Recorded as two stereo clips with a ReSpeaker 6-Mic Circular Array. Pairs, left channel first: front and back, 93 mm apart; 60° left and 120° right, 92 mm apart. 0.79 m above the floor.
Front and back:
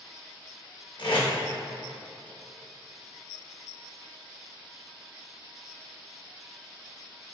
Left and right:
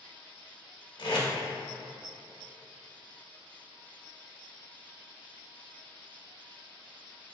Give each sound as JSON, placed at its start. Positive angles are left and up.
{"t": 1.0, "sound": "tape being pulled", "azimuth_deg": 30, "distance_m": 0.7}